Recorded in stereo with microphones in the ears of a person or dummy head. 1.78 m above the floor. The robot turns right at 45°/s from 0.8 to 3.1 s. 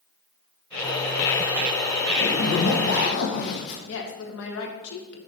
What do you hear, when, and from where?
2.2 s a zipper: 70° left, 1.2 m; by 3.8 s 110° left, 1.2 m
3.9 s a woman speaking: 75° left (ahead or behind), 1.5 m